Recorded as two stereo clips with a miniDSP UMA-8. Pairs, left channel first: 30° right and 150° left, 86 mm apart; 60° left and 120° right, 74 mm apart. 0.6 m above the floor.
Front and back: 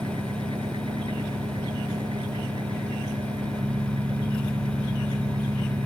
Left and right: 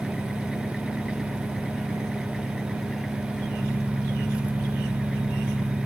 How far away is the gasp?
I don't hear a gasp.